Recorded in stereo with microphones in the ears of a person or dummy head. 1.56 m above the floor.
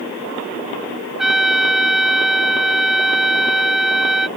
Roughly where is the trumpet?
Centre.